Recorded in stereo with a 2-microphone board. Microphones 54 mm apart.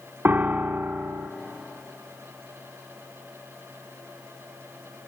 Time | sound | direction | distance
0.2 | a piano | 40° right (ahead or behind) | 0.6 m